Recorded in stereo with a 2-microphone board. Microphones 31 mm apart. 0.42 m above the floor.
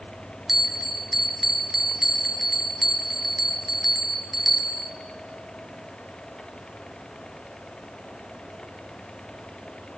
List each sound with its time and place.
0.5 s a bell: 5° right (ahead or behind), 0.5 m